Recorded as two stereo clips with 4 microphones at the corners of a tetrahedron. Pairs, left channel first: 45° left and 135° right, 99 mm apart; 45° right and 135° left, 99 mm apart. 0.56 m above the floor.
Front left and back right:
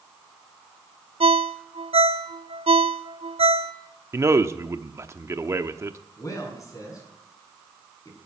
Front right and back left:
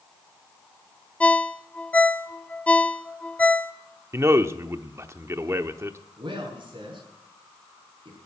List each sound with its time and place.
1.2 s a ringtone: 120° right, 0.6 m
4.1 s a man speaking: straight behind, 0.9 m
6.2 s a man speaking: 100° left, 6.5 m